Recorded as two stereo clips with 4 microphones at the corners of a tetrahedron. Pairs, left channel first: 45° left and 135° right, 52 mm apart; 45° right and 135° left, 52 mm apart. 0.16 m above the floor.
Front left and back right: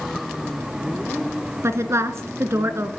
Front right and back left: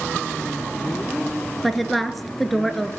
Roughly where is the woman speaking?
Behind right.